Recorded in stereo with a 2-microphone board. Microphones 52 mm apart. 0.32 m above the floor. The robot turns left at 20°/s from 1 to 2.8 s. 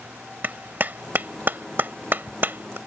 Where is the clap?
40° right (ahead or behind).